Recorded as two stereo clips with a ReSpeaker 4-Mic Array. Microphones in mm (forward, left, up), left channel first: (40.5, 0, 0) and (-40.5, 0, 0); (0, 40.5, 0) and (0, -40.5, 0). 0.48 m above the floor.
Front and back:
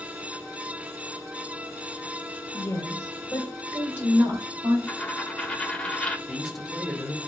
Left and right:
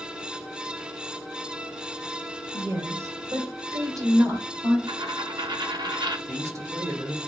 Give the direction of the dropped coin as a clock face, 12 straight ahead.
3 o'clock.